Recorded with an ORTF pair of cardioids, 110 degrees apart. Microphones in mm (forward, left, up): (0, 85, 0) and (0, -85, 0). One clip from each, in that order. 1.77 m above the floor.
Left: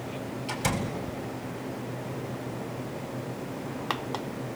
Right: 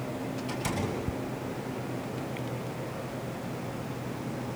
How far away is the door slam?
About 8.5 m.